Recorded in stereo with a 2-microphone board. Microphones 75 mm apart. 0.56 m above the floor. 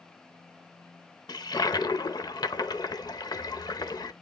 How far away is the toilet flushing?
About 0.8 m.